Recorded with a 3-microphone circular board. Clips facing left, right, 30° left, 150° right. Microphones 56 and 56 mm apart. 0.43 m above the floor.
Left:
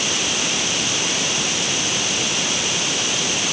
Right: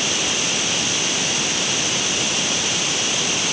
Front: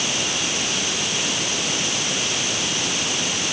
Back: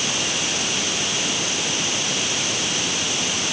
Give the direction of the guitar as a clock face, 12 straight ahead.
I don't hear a guitar.